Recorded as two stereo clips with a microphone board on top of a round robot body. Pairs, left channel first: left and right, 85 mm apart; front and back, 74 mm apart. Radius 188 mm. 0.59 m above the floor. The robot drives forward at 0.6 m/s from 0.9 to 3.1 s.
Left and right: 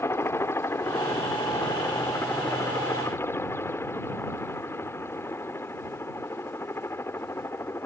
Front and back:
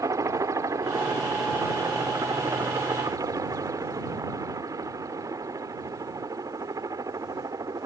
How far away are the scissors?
I don't hear scissors.